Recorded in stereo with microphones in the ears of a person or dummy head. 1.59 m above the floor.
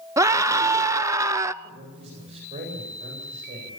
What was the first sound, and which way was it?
A scream, 15° right (ahead or behind).